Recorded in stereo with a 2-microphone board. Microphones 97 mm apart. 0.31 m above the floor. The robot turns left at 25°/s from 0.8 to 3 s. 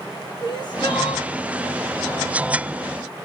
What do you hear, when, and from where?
0.4 s crying: 60° left (ahead or behind), 3 m; by 1.3 s 70° left (ahead or behind), 3 m